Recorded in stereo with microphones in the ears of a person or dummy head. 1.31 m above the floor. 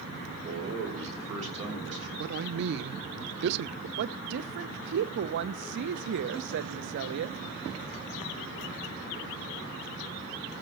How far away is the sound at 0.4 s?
About 5 m.